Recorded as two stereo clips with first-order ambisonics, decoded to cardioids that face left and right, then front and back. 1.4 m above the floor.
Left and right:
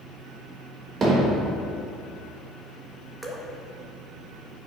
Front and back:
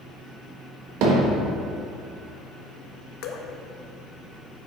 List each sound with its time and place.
1.0 s hammering: 155° right, 1.4 m
3.2 s dripping: 15° right, 0.7 m